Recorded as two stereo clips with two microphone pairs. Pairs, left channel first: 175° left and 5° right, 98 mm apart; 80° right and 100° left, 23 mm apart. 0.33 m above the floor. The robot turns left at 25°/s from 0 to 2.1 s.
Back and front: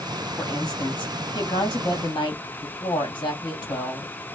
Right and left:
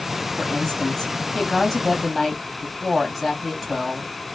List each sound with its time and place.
0.4 s a woman speaking: 140° right, 2 m; by 4.1 s 175° left, 2 m